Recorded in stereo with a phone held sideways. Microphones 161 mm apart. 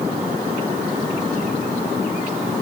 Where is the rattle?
No rattle in this recording.